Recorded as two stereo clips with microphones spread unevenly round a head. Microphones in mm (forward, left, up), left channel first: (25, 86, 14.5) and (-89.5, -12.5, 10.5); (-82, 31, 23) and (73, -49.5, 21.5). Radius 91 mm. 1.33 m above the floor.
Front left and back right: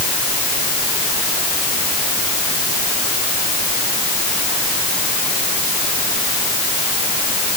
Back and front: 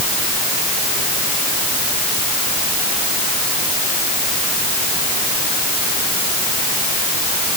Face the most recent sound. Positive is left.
No sound to turn to.